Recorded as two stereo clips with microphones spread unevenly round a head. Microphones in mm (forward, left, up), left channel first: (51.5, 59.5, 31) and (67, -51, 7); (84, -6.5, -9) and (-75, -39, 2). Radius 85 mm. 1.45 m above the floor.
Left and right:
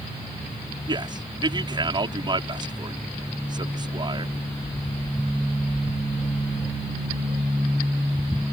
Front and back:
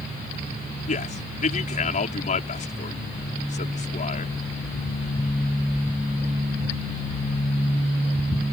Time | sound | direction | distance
0.9 | a man speaking | 30° right | ?